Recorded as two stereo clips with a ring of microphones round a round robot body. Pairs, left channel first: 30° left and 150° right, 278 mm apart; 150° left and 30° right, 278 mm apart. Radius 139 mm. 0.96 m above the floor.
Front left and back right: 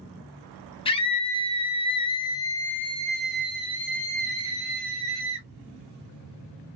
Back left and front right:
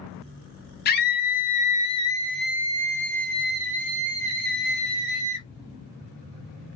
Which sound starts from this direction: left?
A scream, at 0.8 s.